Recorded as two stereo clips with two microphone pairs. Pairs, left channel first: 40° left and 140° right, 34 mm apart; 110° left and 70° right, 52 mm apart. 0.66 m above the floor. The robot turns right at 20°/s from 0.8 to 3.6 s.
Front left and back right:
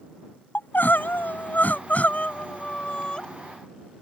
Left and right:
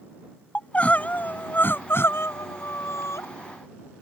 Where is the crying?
50° left; by 3.2 s 100° left.